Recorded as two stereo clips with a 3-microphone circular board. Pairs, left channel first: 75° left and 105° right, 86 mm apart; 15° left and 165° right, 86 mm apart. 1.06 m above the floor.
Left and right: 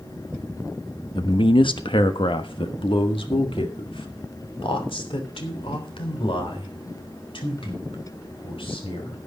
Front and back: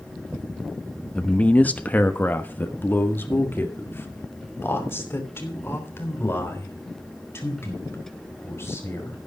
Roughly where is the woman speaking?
Left.